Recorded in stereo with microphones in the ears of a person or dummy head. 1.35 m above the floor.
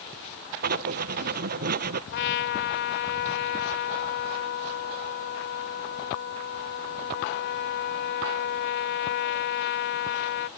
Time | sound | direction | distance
0.6 | writing | 55° right (ahead or behind) | ?
2.1 | a trumpet | 70° left (ahead or behind) | ?